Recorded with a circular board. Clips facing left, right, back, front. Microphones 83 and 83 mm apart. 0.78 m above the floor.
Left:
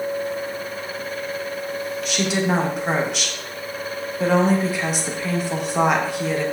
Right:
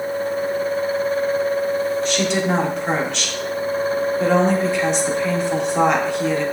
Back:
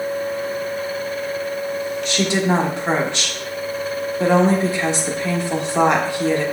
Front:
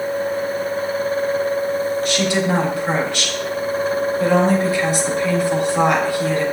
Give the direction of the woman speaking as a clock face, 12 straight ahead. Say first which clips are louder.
Right 2 dB, back 3 dB; 6 o'clock.